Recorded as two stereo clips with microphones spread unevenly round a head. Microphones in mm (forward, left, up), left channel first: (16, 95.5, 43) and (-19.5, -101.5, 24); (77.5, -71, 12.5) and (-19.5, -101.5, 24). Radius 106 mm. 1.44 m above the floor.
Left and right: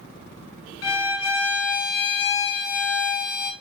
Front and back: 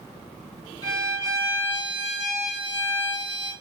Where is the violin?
80° left, 0.7 m.